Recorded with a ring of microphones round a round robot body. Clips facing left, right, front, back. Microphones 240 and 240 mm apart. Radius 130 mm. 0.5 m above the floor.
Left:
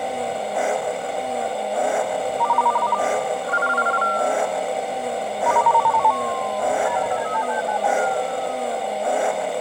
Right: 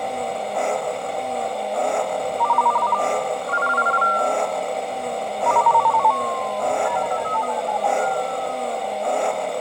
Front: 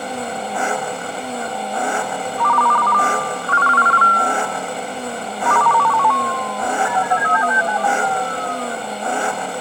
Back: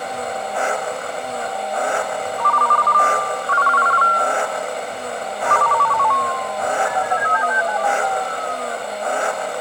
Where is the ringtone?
5° left.